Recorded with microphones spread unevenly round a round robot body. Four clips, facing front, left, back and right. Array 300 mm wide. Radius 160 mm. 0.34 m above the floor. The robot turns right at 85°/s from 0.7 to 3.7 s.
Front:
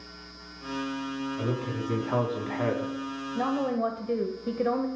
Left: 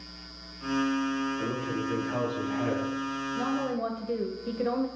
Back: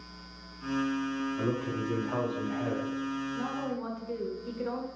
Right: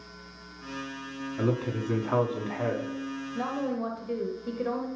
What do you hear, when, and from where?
1.4 s a man speaking: 115° right, 4 m; by 2.9 s 15° left, 4 m
3.4 s a woman speaking: 15° right, 1.8 m; by 4.9 s 15° left, 1.8 m